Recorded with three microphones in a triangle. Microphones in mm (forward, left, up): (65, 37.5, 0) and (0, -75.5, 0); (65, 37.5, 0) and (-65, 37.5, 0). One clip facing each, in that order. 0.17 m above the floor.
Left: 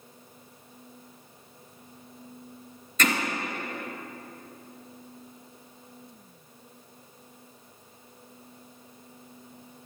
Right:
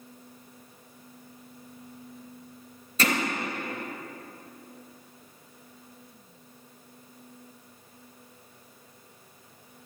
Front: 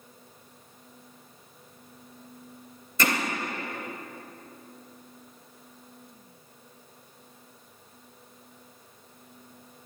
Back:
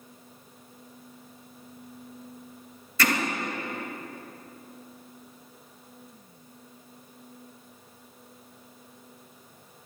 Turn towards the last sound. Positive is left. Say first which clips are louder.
# even, back 1 dB
turn(degrees=-70)